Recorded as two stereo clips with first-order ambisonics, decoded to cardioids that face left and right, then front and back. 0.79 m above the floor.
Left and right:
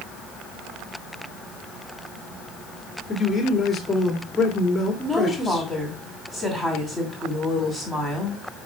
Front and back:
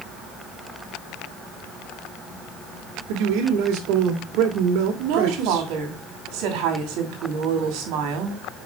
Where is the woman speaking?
170° right, 2.5 m.